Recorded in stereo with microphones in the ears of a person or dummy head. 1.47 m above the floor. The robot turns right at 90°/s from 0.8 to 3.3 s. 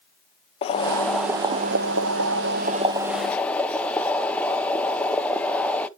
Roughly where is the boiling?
Behind left.